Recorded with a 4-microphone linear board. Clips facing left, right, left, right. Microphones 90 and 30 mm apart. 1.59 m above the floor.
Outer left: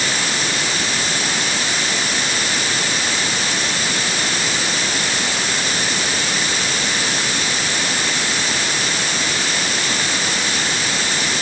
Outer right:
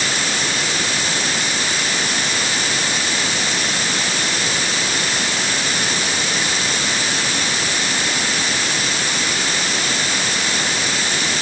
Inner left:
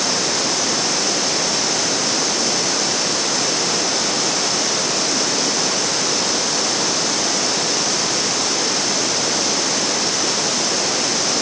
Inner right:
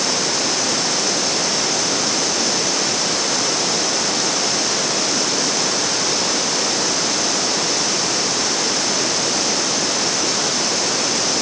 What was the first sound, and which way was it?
Only background noise.